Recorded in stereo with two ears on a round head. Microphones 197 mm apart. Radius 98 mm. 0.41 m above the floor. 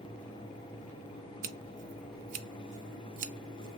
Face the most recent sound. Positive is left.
turn(degrees=-35)  # may be behind; listen again after turning